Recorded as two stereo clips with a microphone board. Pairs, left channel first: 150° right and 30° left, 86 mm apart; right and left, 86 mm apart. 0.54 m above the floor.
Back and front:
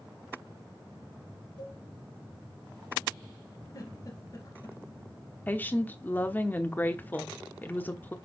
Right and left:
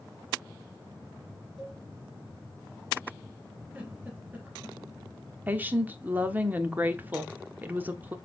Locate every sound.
1.6 s a cowbell: straight behind, 3 m
3.7 s a giggle: 165° left, 3 m
5.5 s a woman speaking: 150° left, 0.9 m